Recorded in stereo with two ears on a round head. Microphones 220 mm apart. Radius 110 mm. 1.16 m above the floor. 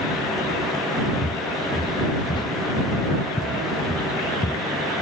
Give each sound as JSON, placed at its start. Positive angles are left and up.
{"t": 1.2, "sound": "footsteps", "side_deg": 20}